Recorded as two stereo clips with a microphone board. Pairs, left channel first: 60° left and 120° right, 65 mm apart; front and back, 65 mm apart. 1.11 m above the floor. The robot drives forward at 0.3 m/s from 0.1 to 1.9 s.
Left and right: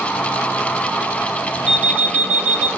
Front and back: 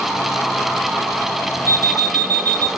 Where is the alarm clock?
50° right, 0.7 m; by 2.7 s 55° right, 0.7 m.